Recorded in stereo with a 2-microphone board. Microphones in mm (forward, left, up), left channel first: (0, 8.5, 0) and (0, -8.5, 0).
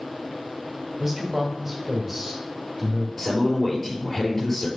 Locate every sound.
1.0 s a man speaking: 20° right (ahead or behind), 1.6 m
3.2 s a man speaking: 15° left (ahead or behind), 5 m